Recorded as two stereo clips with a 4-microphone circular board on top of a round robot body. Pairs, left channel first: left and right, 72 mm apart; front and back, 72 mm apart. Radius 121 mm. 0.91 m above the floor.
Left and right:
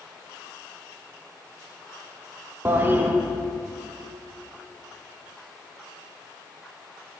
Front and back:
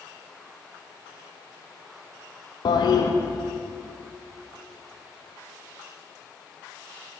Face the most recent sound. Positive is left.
turn(degrees=-25)